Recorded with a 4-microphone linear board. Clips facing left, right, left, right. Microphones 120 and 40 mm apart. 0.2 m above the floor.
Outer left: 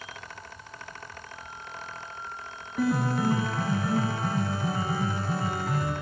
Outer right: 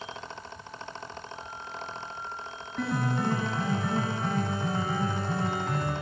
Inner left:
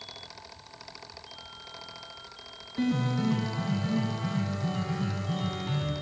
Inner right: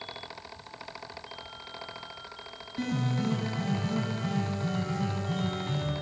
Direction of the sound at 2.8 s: 5° left (ahead or behind).